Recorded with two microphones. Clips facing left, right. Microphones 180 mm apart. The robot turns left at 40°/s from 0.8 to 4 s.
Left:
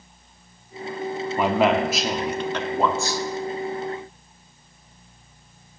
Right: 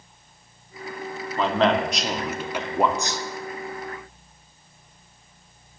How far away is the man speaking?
About 0.7 m.